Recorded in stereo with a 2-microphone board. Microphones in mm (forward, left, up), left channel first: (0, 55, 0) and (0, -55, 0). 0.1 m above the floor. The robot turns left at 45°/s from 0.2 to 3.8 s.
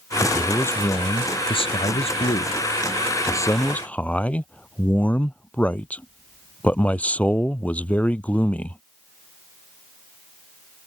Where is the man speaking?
175° left; by 8.8 s 15° left.